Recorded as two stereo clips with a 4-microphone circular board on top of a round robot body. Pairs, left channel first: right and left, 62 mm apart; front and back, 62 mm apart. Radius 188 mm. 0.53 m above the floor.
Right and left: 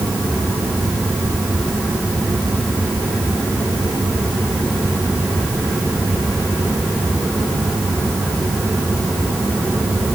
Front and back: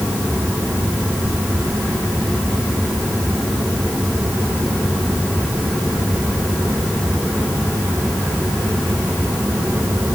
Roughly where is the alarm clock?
No alarm clock in this recording.